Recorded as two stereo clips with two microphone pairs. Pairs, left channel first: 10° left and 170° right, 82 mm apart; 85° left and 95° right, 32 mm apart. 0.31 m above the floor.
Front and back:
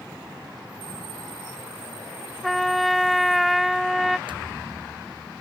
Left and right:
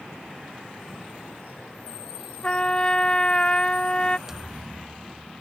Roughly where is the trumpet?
Left.